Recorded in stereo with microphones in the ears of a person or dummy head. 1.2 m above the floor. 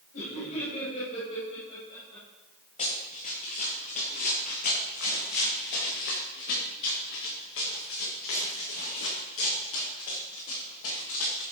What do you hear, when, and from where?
0.1 s laughter: 45° left (ahead or behind), 5.5 m; by 2.3 s 25° left (ahead or behind), 5.5 m
2.8 s running footsteps: 40° left (ahead or behind), 6 m; by 11.4 s 80° left, 8.5 m